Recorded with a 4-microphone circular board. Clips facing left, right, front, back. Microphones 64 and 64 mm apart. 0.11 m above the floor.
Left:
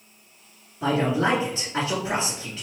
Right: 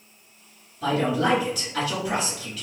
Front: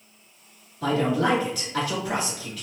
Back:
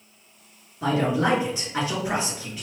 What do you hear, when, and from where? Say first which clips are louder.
0.8 s a man speaking: even, even; 130° left, 1.7 m